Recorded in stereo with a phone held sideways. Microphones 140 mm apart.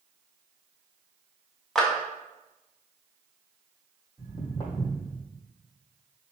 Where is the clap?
5° left (ahead or behind), 1.7 m.